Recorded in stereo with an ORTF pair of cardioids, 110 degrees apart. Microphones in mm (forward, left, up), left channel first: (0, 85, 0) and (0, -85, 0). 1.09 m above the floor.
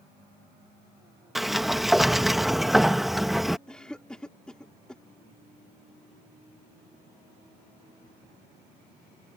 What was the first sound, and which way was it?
A sliding door, straight ahead.